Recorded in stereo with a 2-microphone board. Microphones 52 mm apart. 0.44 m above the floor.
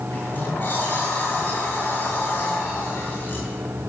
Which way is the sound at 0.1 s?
35° left (ahead or behind).